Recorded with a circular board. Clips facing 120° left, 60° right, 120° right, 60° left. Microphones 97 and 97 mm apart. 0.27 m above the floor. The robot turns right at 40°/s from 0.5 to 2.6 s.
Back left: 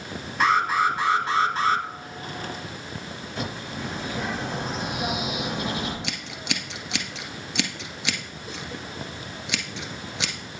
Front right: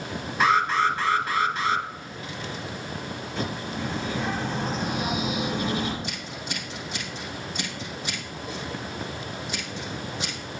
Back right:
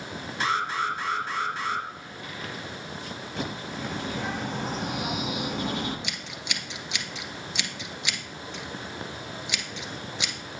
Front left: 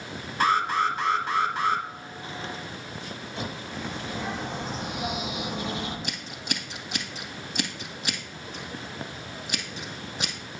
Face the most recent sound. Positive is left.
turn(degrees=110)